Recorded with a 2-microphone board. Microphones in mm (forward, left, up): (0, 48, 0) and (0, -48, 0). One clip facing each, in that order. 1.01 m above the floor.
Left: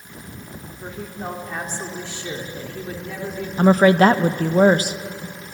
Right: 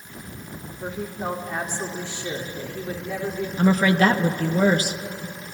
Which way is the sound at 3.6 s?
45° left (ahead or behind).